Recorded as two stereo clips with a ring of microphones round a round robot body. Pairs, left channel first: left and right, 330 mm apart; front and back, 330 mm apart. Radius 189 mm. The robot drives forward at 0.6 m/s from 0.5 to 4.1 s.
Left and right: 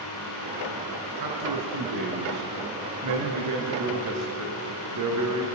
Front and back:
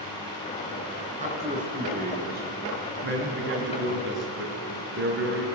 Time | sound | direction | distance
1.2 | a man speaking | 110° right | 5.5 m